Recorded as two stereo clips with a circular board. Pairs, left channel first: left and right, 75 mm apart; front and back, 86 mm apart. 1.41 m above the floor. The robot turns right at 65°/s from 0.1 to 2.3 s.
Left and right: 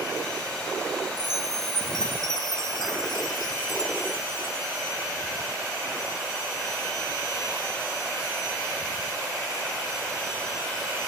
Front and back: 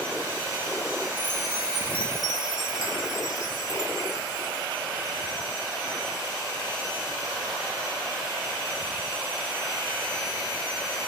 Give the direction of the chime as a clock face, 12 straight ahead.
11 o'clock.